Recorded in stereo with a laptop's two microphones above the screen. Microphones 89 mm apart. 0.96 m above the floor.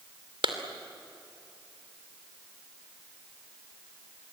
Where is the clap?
75° right (ahead or behind), 2.5 m.